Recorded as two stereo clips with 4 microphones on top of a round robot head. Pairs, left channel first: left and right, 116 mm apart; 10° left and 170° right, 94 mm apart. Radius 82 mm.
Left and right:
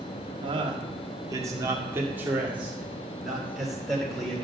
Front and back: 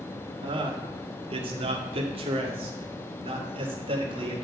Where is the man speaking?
135° right, 1.6 m; by 4.5 s 175° left, 3 m.